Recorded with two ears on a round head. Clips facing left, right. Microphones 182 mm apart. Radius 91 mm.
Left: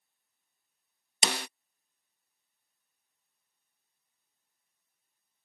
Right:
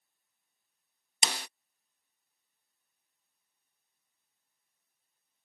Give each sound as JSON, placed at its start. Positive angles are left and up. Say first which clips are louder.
{"t": 1.2, "sound": "a snare drum", "louder": "left 4 dB", "side_deg": 55}